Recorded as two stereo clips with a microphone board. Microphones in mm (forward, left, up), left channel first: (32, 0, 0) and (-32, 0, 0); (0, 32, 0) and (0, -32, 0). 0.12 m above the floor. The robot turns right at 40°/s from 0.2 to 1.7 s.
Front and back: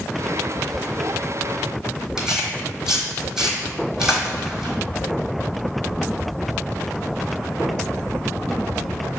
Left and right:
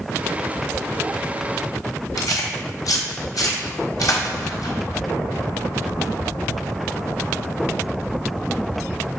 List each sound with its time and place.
2.2 s tearing paper: 100° left, 1.0 m